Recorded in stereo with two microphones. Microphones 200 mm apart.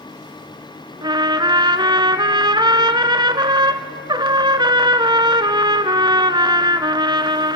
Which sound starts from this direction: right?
A trumpet, at 1.0 s.